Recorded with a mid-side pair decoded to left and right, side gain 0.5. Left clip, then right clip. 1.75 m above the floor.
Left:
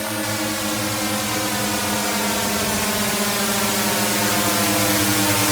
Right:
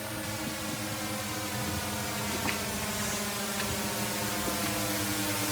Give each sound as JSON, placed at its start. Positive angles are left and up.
{"t": 0.0, "sound": "a drone", "azimuth_deg": 65}